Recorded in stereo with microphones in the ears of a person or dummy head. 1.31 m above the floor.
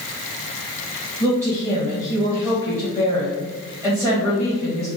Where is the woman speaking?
15° left (ahead or behind), 1.5 m.